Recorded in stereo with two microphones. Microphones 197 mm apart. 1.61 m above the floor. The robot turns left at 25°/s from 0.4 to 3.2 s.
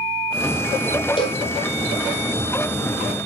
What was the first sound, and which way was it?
A cowbell, 25° left (ahead or behind).